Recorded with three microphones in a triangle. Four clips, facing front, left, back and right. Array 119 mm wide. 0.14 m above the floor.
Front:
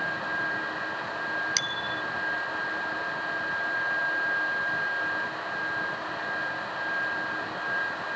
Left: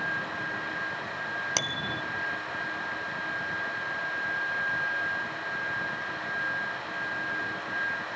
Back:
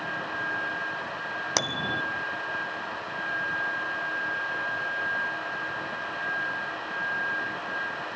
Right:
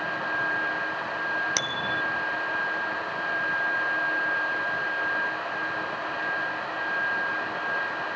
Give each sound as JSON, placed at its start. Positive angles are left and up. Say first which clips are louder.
{"t": 1.6, "sound": "a bicycle bell", "louder": "right 4 dB, back 3 dB", "azimuth_deg": 175}